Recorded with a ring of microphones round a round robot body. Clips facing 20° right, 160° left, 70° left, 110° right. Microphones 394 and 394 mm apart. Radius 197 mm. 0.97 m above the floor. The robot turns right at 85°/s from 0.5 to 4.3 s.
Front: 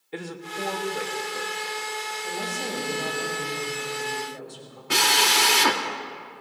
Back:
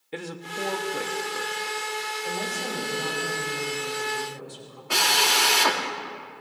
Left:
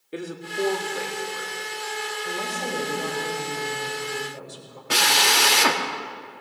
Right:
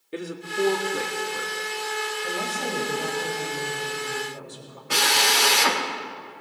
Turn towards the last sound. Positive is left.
turn(degrees=40)